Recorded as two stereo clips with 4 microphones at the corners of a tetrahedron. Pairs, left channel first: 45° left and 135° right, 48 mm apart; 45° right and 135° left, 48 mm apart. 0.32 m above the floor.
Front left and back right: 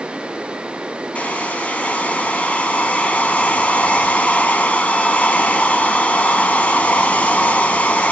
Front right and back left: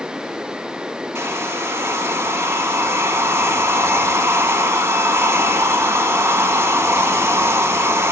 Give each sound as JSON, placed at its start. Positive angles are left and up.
{"t": 1.1, "sound": "a hair dryer", "azimuth_deg": 105, "distance_m": 0.8}